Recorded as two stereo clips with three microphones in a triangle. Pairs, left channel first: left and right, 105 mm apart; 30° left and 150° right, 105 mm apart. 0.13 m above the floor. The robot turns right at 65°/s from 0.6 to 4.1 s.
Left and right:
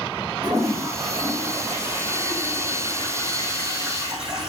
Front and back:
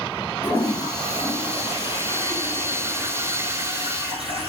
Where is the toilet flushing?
35° right, 4 m; by 4.5 s 170° right, 4 m.